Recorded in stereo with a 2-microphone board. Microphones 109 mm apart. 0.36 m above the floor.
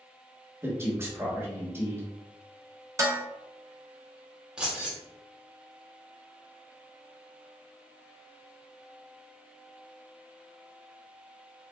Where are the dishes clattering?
30° right (ahead or behind), 0.6 m.